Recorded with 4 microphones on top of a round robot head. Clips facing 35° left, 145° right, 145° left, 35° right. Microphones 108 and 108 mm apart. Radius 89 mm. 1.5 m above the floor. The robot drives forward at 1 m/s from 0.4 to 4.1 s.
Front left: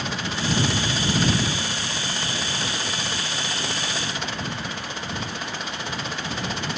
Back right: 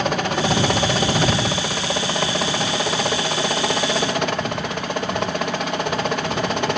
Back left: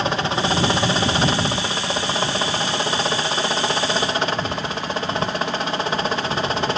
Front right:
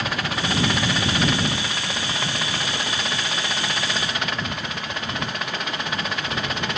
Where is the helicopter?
160° right.